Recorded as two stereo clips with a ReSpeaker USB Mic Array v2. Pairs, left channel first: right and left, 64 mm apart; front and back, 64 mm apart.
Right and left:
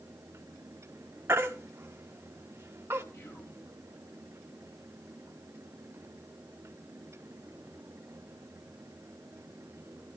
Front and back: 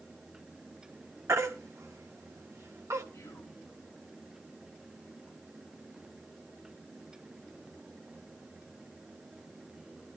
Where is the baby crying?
140° left, 1.6 m.